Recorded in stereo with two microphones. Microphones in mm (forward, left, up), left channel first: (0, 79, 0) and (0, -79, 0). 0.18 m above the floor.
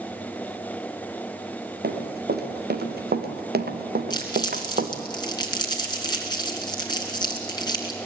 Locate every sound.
1.8 s running footsteps: 90° right, 3 m; by 4.9 s 70° right (ahead or behind), 1.8 m
4.1 s crumpling: 25° left (ahead or behind), 2.5 m